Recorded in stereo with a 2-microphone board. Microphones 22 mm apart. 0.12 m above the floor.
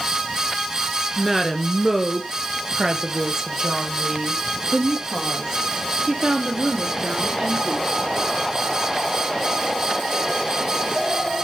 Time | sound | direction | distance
1.2 | a woman speaking | 5° right (ahead or behind) | 1.9 m